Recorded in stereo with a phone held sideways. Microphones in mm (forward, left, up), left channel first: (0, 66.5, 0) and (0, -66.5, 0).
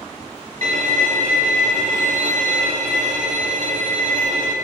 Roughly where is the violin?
Right.